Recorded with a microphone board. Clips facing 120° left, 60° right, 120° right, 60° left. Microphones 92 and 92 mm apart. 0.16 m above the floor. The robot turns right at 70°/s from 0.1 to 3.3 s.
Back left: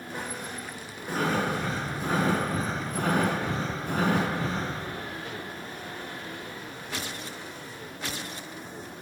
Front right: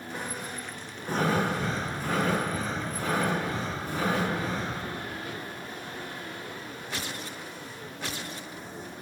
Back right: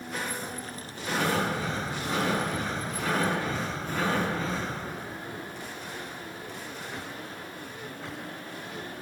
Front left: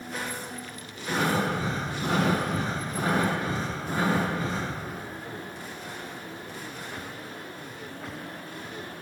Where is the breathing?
20° right, 2.5 m; by 4.8 s 135° left, 2.5 m.